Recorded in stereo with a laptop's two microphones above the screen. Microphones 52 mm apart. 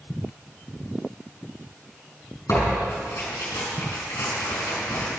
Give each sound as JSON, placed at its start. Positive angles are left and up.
{"t": 2.5, "sound": "tearing paper", "side_deg": 80, "distance_m": 5.0}